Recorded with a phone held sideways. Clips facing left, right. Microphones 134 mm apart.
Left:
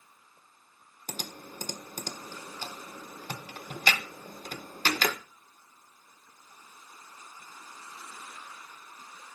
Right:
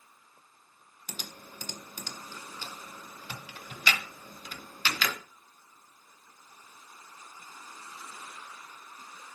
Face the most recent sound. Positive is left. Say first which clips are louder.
# left 5 dB
turn(degrees=45)  # may be behind; listen again after turning